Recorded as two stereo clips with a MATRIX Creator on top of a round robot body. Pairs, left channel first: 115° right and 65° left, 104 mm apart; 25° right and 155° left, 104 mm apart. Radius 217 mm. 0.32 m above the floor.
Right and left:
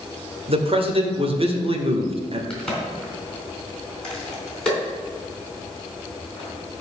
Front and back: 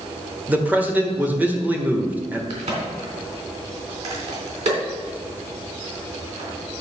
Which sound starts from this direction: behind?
A crack, at 2.5 s.